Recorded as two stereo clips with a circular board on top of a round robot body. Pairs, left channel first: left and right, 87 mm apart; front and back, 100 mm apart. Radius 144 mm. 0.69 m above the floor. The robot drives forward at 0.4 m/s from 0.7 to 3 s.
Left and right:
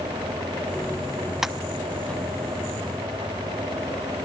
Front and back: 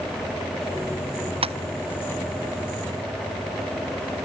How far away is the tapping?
About 0.8 m.